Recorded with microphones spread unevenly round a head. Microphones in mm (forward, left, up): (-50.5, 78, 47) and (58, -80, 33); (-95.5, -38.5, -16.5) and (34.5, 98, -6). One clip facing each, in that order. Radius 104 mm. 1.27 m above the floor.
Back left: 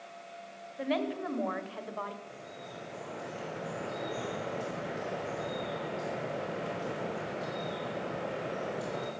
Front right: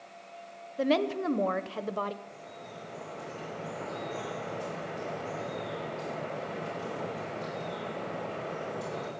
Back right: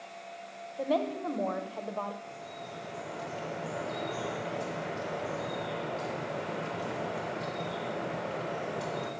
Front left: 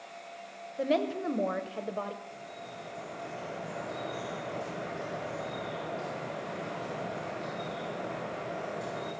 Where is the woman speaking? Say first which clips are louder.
Front right 5 dB, front left 1 dB; 25° right, 0.8 m.